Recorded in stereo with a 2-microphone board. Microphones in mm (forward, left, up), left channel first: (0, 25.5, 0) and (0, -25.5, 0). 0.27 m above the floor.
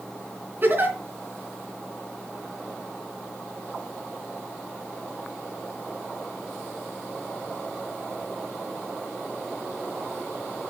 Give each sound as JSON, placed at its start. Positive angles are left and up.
{"t": 0.6, "sound": "a giggle", "side_deg": -40, "distance_m": 3.0}